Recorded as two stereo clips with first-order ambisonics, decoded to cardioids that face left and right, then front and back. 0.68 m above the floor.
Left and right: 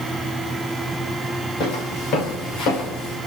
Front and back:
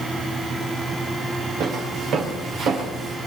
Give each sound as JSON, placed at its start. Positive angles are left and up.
{"t": 1.6, "sound": "footsteps", "azimuth_deg": 130, "distance_m": 5.5}